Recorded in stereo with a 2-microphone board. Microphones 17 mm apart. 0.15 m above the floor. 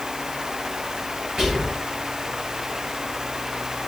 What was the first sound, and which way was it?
Whispering, 35° right (ahead or behind).